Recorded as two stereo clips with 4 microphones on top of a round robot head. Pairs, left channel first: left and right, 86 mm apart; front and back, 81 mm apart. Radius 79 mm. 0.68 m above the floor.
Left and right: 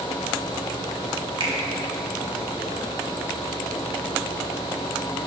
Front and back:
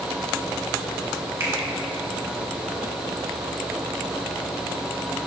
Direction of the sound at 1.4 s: 120° right.